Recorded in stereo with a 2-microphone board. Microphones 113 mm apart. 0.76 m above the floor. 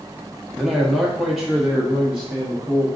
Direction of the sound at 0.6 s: Centre (ahead or behind).